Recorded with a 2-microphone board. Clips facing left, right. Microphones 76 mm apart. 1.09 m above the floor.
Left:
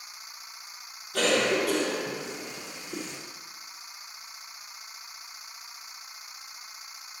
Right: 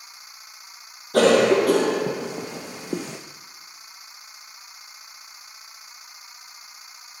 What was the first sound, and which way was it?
A cough, 65° right (ahead or behind).